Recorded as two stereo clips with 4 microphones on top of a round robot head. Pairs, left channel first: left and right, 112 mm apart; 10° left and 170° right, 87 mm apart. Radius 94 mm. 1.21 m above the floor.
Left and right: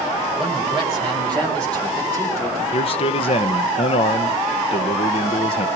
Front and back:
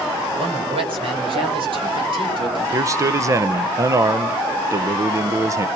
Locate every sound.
0.4 s a man speaking: 175° right, 6.5 m; by 2.6 s 160° left, 4.5 m
2.7 s a man speaking: 130° left, 0.7 m